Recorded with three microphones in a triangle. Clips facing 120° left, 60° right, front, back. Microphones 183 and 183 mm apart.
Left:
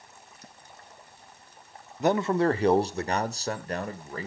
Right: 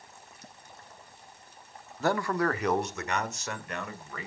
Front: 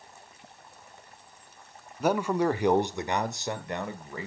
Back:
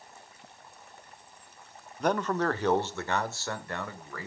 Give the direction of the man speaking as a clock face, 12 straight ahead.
9 o'clock.